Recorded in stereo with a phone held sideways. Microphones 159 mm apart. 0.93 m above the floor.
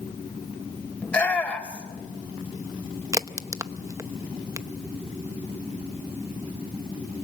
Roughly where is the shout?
Centre.